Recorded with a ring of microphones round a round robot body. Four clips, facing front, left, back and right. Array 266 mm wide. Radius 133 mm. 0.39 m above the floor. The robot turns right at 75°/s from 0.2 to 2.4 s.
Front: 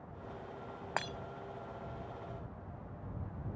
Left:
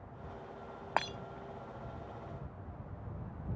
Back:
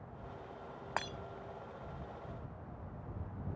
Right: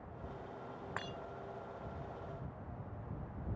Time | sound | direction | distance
1.0 | breaking glass | 80° left | ?